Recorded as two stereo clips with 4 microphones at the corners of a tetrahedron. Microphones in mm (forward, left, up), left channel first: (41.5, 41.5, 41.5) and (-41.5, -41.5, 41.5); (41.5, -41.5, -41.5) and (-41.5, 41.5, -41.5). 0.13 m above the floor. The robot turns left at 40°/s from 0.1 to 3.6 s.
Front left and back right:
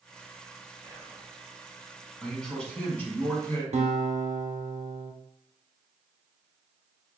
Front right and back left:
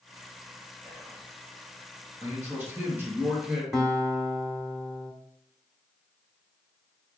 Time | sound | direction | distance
0.8 | whispering | 45° left | 1.3 m
2.2 | a man speaking | 135° left | 1.2 m
3.7 | a guitar | 140° right | 0.8 m